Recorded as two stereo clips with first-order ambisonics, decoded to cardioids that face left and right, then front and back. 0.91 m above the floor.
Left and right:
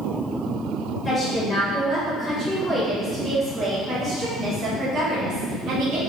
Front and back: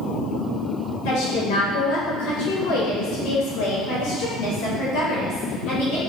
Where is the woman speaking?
15° left, 3 m; by 6.0 s 35° right, 4.5 m.